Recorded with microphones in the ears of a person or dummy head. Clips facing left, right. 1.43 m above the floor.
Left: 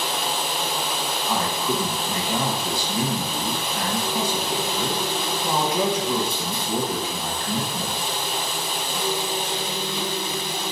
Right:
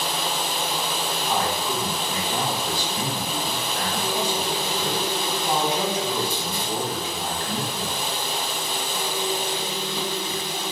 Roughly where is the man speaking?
Left.